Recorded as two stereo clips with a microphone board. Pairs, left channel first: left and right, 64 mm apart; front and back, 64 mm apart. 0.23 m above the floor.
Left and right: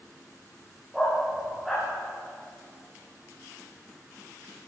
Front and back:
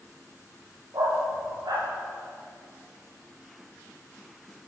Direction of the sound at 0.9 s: Straight behind.